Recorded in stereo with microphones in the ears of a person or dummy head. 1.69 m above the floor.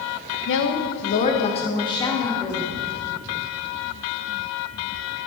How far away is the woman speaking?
About 2.0 m.